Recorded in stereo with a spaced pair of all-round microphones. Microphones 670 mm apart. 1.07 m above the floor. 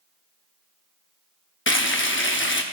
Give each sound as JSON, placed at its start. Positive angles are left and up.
{"t": 1.7, "sound": "frying", "side_deg": 20, "distance_m": 0.6}